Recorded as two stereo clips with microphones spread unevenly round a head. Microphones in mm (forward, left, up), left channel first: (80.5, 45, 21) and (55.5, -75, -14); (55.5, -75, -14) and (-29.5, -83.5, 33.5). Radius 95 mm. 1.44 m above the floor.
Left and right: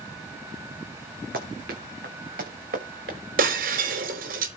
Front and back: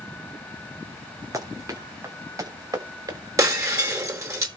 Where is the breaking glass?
130° right, 4.5 m.